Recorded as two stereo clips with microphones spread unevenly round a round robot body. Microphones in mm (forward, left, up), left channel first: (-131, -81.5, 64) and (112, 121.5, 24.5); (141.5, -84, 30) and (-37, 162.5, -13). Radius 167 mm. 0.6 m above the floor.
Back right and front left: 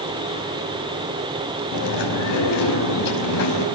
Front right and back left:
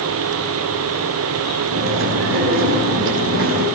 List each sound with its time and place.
1.7 s chewing: straight behind, 5 m